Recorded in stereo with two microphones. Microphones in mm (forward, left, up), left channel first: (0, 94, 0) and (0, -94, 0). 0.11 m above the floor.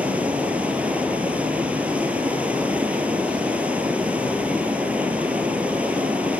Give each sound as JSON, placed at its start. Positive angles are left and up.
{"t": 0.0, "sound": "running water", "side_deg": -5, "distance_m": 1.6}